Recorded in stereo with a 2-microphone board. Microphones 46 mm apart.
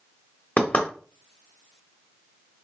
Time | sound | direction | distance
0.6 | knocking | 25° left (ahead or behind) | 1.1 m